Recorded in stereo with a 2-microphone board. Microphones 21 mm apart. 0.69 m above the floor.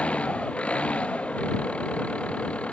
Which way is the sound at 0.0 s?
85° left.